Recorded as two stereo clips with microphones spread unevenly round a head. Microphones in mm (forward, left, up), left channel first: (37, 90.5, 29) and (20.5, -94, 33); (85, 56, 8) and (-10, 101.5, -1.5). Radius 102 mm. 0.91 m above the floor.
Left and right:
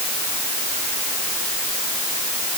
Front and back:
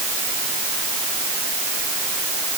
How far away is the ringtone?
I don't hear a ringtone.